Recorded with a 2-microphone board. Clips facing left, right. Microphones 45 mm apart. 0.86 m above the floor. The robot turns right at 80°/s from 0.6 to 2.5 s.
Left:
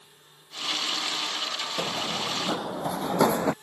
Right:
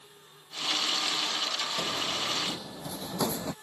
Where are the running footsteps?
40° left (ahead or behind); by 3.5 s 45° left (ahead or behind).